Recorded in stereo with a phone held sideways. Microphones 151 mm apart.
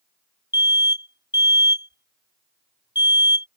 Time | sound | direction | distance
0.5 | an alarm | 25° left (ahead or behind) | ?